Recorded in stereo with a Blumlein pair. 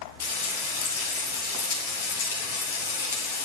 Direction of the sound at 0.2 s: 65° left.